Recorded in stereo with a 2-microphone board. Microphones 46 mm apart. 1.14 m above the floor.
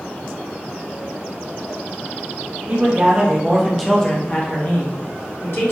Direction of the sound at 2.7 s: 40° right (ahead or behind).